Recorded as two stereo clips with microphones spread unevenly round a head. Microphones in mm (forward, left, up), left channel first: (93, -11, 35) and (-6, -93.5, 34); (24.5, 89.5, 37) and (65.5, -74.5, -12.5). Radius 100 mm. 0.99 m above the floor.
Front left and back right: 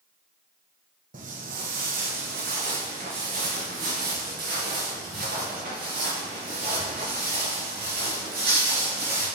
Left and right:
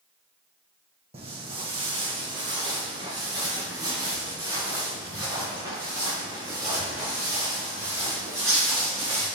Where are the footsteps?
145° right, 1.8 m; by 9.3 s 155° right, 6.5 m.